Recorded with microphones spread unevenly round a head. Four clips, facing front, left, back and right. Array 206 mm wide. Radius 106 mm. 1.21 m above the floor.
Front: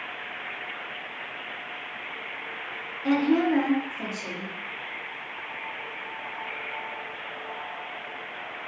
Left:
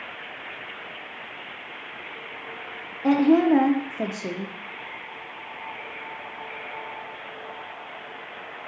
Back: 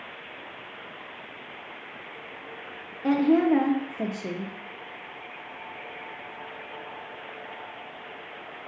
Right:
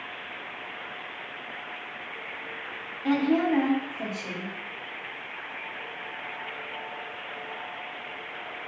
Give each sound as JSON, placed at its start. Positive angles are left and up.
{"t": 3.0, "sound": "a woman speaking", "azimuth_deg": 110, "distance_m": 0.5}